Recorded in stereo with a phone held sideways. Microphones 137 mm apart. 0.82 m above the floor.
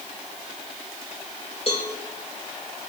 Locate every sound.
1.7 s a cowbell: 45° left (ahead or behind), 4 m